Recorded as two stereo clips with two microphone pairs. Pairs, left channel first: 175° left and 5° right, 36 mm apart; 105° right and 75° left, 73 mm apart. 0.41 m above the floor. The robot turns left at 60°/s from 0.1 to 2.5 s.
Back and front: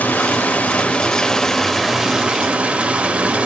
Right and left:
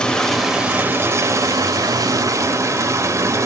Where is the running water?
175° right, 1.1 m; by 3.5 s 40° left, 1.1 m.